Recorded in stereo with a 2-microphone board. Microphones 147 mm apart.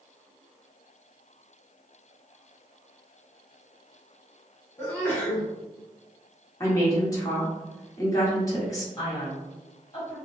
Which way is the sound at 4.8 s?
15° left (ahead or behind).